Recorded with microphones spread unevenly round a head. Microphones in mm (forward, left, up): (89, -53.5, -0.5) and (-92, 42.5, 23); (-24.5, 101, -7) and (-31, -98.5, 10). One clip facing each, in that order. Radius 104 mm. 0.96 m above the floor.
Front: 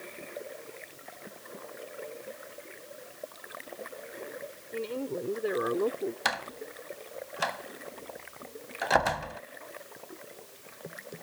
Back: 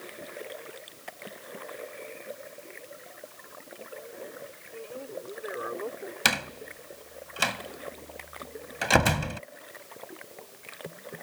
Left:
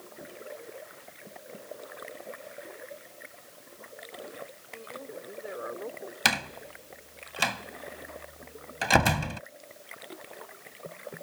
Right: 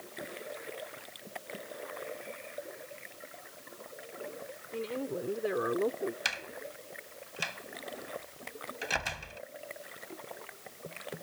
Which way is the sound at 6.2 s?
105° left.